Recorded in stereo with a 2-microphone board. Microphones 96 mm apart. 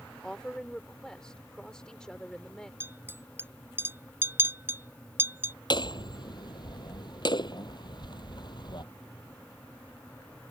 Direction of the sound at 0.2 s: 10° left (ahead or behind).